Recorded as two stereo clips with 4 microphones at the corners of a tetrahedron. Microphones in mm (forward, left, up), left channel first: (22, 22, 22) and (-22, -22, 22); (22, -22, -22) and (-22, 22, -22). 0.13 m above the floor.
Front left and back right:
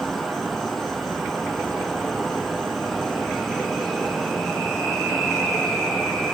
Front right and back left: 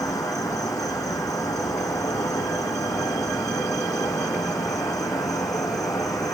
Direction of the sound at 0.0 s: 45° right.